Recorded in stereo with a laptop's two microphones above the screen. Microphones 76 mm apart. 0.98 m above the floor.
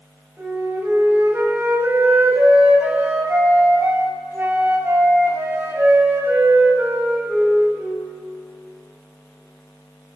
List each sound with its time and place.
0.4 s a flute: 25° right (ahead or behind), 4.5 m